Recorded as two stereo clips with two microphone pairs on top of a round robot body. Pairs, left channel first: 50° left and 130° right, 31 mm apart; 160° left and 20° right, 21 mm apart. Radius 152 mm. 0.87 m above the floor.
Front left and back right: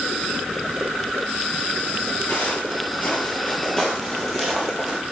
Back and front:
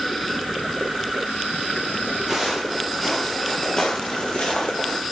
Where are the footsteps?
60° left, 1.6 m; by 5.0 s 150° left, 2 m.